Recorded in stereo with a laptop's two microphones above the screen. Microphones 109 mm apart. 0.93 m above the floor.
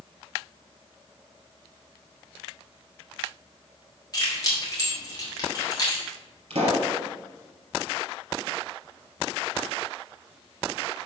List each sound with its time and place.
4.1 s keys jangling: 35° left (ahead or behind), 2 m
6.5 s a pop: 65° right (ahead or behind), 3.5 m